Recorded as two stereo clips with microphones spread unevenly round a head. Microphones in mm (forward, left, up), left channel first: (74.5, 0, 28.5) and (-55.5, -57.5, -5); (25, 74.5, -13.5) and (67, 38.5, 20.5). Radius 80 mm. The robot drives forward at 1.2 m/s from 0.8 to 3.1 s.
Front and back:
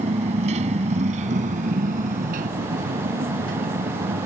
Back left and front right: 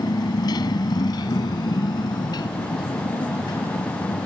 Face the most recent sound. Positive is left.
turn(degrees=160)